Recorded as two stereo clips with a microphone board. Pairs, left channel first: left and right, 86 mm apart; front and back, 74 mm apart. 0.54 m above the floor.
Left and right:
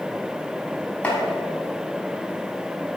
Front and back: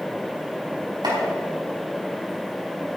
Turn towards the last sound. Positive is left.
turn(degrees=165)